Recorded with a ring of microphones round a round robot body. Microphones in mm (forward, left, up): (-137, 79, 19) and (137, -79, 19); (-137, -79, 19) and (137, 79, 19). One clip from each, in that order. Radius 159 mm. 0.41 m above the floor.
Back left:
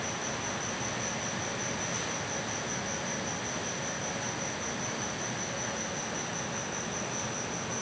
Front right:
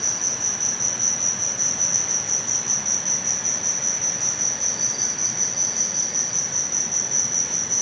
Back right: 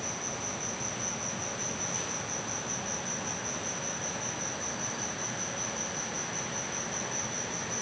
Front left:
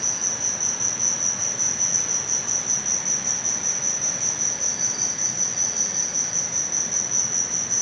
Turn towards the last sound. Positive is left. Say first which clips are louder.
# front right 10 dB, front left 10 dB
turn(degrees=-20)